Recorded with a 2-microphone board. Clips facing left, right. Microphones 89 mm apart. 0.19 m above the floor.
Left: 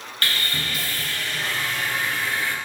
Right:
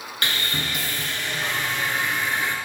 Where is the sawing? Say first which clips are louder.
Even; 20° right (ahead or behind), 1.1 m.